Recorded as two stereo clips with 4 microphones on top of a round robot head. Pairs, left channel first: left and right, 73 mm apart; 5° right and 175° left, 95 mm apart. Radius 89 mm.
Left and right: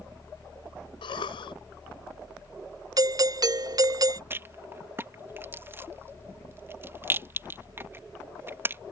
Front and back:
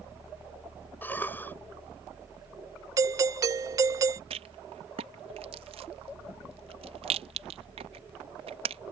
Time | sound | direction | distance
1.0 | a cough | 70° left | ?
3.0 | a doorbell | 125° right | ?
4.3 | a rattle | 150° right | ?